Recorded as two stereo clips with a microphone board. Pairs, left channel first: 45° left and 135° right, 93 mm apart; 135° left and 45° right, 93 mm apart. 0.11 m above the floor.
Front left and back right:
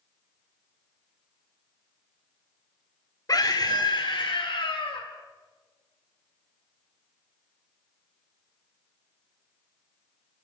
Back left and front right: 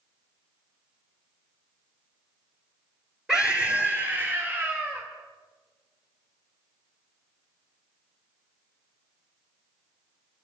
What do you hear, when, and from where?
3.3 s a scream: 35° left, 1.4 m; by 5.0 s 15° left, 2.5 m